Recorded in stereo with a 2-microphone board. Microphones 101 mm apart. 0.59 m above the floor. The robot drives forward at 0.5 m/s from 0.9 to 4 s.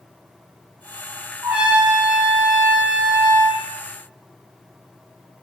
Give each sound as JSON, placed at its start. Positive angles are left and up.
{"t": 1.4, "sound": "a trumpet", "side_deg": -20, "distance_m": 3.0}